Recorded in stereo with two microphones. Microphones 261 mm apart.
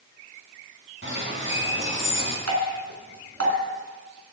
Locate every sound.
1.0 s a bird: 50° right (ahead or behind), 3.5 m
2.5 s dripping: 65° right (ahead or behind), 3 m